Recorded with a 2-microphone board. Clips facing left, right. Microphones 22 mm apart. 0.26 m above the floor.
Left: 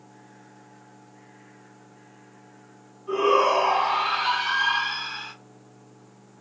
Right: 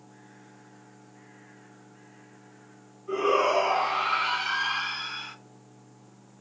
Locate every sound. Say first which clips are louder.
3.1 s a shout: left 4 dB; 45° left (ahead or behind), 2 m